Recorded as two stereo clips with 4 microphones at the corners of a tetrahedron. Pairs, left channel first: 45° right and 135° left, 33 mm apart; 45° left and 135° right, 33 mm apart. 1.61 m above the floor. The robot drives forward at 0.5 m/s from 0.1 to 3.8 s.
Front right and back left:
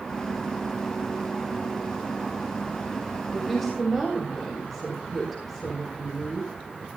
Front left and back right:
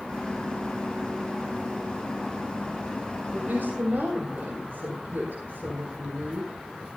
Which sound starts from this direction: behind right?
A woman speaking, at 3.3 s.